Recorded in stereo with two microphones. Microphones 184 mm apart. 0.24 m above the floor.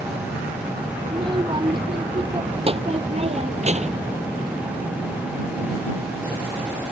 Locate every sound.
1.1 s a child speaking: 25° right (ahead or behind); by 4.1 s 40° right (ahead or behind)